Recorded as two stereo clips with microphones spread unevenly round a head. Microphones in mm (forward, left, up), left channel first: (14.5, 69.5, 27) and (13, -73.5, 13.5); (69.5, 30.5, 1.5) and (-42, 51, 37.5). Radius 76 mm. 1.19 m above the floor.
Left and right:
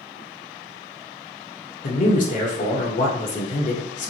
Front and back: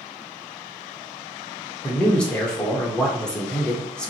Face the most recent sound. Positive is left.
turn(degrees=60)